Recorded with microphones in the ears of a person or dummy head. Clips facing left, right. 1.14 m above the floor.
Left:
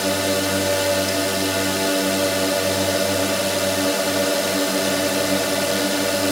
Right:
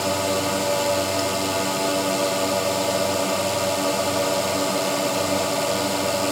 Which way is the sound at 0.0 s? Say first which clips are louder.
Left 2 dB; 15° left (ahead or behind).